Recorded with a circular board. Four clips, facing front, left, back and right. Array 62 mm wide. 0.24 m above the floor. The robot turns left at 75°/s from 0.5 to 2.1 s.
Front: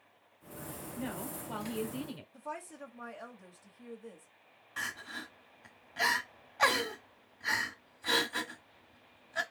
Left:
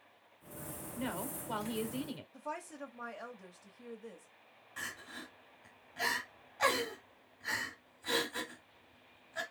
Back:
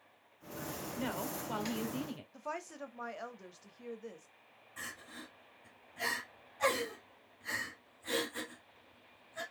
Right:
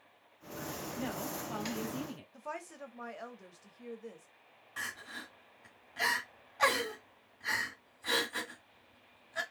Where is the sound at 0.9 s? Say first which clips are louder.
Left 1 dB, back 1 dB; 175° right, 1.2 m; by 2.2 s 100° left, 1.2 m.